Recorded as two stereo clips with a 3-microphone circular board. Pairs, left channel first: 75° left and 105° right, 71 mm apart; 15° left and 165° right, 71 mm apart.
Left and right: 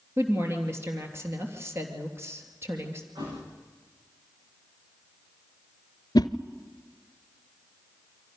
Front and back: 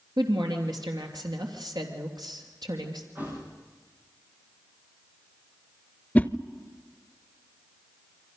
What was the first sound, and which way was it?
A woman speaking, 155° right.